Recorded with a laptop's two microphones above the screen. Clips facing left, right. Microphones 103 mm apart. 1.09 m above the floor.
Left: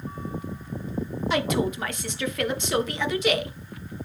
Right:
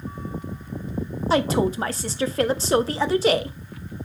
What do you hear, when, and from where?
1.3 s a woman speaking: 35° right (ahead or behind), 0.7 m